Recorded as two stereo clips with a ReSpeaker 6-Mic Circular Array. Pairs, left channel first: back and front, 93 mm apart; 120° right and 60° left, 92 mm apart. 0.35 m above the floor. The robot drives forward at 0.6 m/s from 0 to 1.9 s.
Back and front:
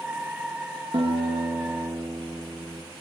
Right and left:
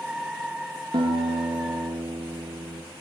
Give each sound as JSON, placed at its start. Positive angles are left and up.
{"t": 0.9, "sound": "a guitar", "azimuth_deg": 20, "distance_m": 6.0}